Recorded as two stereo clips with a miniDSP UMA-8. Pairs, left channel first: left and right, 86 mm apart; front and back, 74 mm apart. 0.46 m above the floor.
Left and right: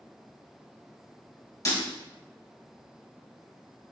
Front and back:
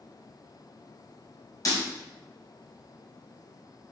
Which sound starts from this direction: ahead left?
Breaking glass, at 1.6 s.